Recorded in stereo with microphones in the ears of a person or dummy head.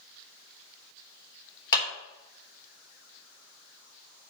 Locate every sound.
1.7 s a clap: 20° left (ahead or behind), 4 m